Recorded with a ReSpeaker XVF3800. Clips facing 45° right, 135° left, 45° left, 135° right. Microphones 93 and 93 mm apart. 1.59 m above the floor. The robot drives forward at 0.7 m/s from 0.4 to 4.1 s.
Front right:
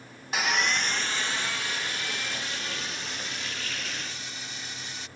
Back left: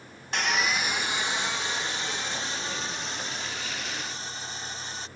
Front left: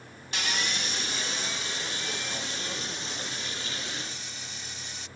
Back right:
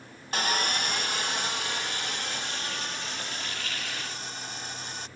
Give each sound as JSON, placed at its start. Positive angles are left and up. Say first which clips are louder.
{"t": 0.3, "sound": "sawing", "louder": "even, back right 4 dB", "azimuth_deg": -130}